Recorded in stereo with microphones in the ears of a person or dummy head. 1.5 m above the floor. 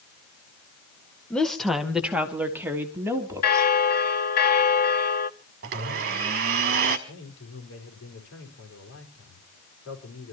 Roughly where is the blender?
Right.